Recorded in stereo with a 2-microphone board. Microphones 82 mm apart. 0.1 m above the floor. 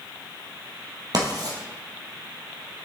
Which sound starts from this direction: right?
Writing, at 1.1 s.